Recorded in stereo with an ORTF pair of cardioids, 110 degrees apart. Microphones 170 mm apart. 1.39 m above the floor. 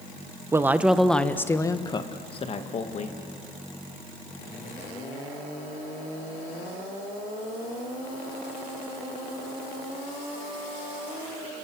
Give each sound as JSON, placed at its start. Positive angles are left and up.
{"t": 0.5, "sound": "a woman speaking", "azimuth_deg": -15, "distance_m": 1.2}